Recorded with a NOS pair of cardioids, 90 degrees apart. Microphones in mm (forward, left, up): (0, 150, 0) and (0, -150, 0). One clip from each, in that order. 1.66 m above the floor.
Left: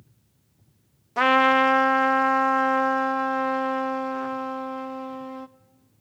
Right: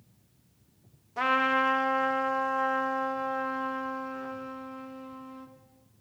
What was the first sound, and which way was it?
A trumpet, 50° left.